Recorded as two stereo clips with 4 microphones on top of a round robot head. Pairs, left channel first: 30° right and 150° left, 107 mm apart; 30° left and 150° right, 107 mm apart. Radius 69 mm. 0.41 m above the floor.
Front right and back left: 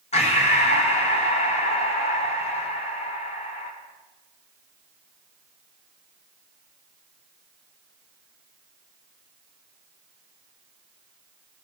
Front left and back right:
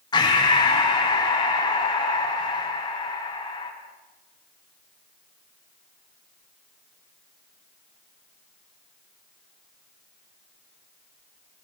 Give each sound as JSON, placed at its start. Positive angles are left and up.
{"t": 0.1, "sound": "breathing", "azimuth_deg": -15, "distance_m": 5.0}